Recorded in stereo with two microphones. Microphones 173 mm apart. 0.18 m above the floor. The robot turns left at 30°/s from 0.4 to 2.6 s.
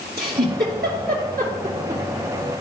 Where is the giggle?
65° right (ahead or behind), 2.5 m; by 2.0 s 40° right (ahead or behind), 2.5 m.